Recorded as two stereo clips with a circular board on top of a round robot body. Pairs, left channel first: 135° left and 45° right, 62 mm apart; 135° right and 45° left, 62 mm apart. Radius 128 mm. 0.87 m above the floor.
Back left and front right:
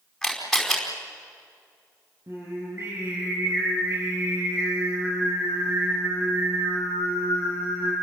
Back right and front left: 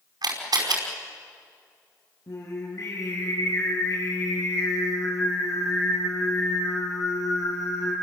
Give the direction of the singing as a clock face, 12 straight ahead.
3 o'clock.